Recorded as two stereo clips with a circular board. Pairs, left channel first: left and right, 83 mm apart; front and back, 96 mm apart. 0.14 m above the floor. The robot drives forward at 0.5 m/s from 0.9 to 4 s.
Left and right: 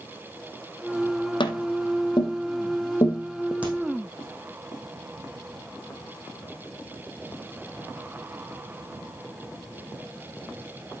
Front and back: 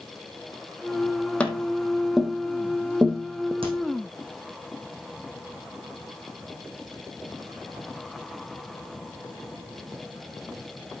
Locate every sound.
1.4 s tapping: 75° left, 1.4 m; by 3.5 s 120° left, 1.6 m
3.6 s a crack: 165° right, 4.5 m